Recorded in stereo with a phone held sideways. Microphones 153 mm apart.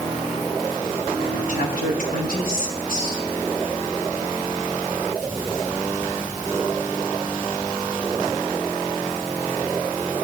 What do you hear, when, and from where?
1.5 s a woman speaking: 80° left, 7 m